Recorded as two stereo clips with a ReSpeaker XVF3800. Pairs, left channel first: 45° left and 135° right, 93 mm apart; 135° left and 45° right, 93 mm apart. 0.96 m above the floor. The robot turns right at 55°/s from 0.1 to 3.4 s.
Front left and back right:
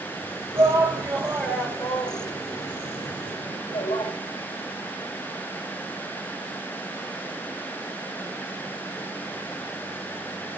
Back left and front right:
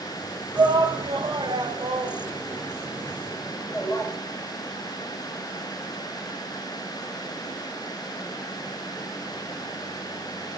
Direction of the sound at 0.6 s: 115° right.